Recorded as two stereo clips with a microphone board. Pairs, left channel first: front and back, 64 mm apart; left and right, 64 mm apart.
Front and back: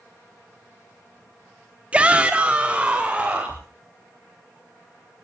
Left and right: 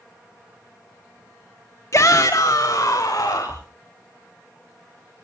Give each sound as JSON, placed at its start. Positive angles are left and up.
{"t": 1.9, "sound": "a shout", "azimuth_deg": 115, "distance_m": 1.1}